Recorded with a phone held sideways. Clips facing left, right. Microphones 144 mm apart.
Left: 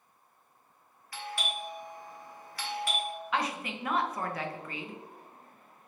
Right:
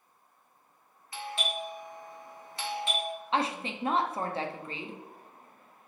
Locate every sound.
1.1 s a doorbell: 25° right (ahead or behind), 0.8 m
3.3 s a woman speaking: 30° right (ahead or behind), 0.5 m